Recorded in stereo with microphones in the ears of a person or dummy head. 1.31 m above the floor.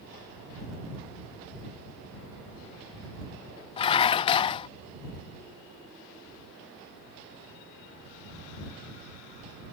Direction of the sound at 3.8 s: 25° left (ahead or behind).